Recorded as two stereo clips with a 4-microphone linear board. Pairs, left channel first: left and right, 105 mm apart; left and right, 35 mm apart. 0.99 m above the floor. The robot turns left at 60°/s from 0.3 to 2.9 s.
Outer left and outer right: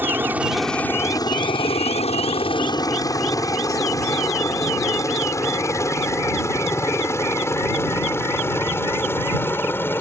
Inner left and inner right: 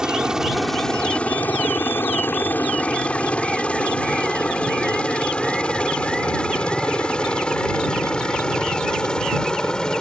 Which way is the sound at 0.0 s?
15° right (ahead or behind).